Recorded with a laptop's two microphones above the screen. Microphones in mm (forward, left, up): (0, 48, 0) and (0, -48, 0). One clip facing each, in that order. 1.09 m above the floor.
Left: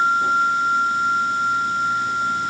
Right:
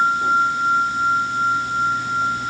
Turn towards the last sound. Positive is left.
No sound to turn to.